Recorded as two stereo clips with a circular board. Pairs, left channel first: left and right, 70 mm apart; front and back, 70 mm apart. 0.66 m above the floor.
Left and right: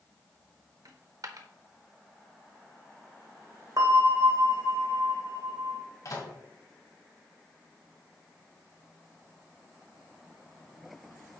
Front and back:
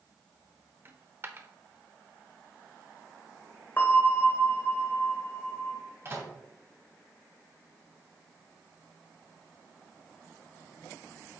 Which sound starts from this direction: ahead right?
A bell, at 3.8 s.